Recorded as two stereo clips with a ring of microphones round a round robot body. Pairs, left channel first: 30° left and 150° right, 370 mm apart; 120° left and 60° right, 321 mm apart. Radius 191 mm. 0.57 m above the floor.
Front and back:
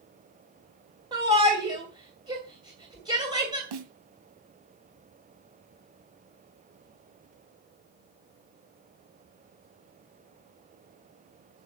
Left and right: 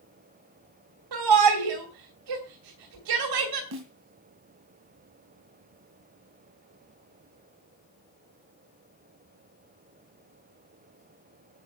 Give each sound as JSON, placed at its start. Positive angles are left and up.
{"t": 1.1, "sound": "a shout", "azimuth_deg": -70, "distance_m": 2.5}
{"t": 3.7, "sound": "a snare drum", "azimuth_deg": -120, "distance_m": 2.0}